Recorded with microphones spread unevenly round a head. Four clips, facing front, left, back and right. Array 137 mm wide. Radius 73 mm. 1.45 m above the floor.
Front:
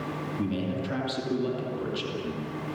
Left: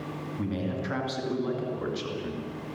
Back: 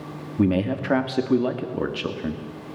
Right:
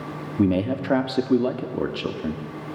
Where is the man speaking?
125° right, 2.5 m.